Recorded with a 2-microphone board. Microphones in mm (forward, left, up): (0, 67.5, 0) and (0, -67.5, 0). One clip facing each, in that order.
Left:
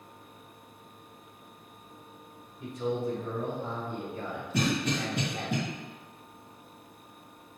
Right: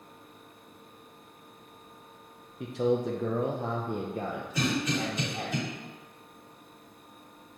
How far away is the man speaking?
About 1.0 m.